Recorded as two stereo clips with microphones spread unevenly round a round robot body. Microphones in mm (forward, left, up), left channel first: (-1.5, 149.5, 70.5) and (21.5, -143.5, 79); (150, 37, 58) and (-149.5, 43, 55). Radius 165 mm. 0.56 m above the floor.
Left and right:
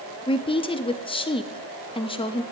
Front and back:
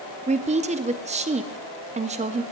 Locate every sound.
0.3 s a woman speaking: 140° left, 0.8 m